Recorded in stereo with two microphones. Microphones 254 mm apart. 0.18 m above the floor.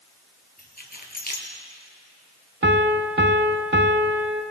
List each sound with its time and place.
0.6 s keys jangling: 35° left (ahead or behind), 2.5 m
2.6 s a piano: 50° right (ahead or behind), 0.9 m